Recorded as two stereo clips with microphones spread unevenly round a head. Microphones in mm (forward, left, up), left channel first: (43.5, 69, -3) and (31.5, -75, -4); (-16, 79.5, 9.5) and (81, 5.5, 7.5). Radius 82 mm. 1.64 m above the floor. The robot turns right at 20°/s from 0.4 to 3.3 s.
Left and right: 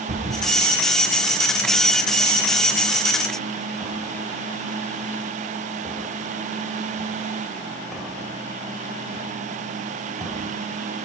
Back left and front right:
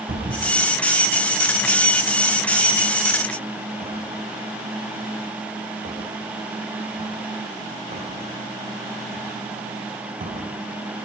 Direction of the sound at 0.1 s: 60° right.